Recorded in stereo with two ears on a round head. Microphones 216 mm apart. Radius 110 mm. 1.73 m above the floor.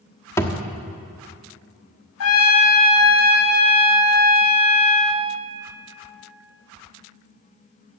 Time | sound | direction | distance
0.4 | a thud | 10° left (ahead or behind) | 1.3 m
2.2 | a trumpet | 60° left (ahead or behind) | 1.1 m